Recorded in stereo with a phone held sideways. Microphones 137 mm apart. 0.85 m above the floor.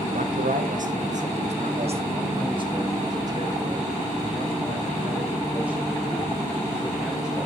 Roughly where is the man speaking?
Right.